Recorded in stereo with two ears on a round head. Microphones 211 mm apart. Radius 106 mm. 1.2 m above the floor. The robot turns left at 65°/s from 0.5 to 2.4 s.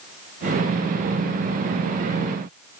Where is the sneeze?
No sneeze in this recording.